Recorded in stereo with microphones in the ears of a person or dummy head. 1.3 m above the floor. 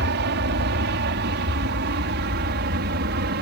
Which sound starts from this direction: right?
An aircraft, at 0.0 s.